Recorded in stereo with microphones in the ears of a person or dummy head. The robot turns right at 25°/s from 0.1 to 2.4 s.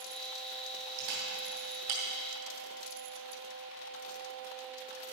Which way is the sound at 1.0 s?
55° right (ahead or behind).